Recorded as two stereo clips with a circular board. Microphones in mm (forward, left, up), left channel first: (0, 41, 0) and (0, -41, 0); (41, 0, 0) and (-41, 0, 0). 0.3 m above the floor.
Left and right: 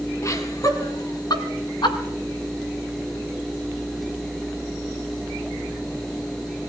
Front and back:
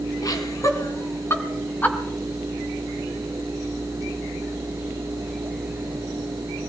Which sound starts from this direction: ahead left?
Laughter, at 0.2 s.